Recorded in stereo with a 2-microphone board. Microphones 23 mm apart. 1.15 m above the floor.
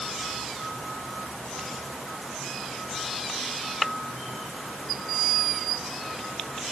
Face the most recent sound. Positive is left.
No sound to turn to.